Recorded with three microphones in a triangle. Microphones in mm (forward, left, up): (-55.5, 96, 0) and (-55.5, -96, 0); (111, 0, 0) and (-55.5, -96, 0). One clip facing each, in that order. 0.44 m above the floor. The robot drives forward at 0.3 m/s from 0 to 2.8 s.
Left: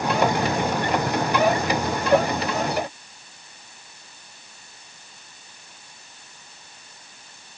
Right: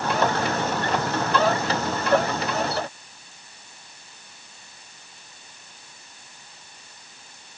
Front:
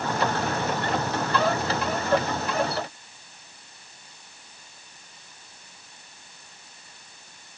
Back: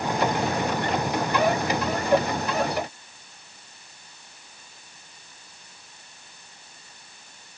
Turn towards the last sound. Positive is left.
No sound to turn to.